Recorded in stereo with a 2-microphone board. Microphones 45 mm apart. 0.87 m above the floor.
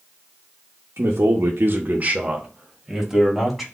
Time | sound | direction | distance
1.0 | a man speaking | 70° right (ahead or behind) | 0.8 m